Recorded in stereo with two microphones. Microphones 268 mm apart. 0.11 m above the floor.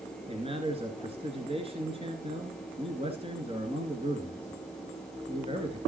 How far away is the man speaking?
About 1.9 m.